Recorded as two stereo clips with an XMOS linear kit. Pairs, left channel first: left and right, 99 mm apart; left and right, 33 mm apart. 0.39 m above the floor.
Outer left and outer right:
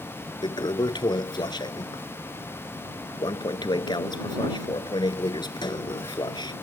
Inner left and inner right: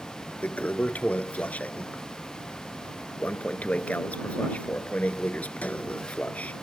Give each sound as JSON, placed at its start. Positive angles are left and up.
{"t": 0.4, "sound": "a toilet flushing", "side_deg": 50}